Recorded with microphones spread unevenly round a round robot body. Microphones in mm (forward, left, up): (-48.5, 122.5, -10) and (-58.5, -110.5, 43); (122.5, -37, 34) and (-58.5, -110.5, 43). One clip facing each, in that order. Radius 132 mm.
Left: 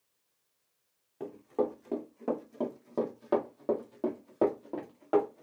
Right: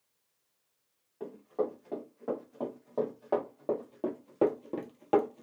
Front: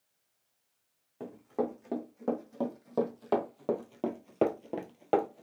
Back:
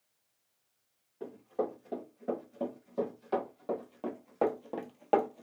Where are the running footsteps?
35° left, 1.9 m; by 5.5 s 75° right, 0.8 m.